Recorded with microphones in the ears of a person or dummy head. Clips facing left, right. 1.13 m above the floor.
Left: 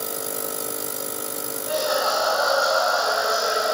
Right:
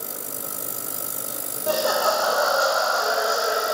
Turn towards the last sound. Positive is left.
turn(degrees=-30)  # may be behind; listen again after turning